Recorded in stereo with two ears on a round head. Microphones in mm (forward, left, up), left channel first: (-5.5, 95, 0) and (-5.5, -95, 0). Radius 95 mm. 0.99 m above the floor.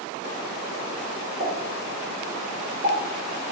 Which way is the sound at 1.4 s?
40° right (ahead or behind).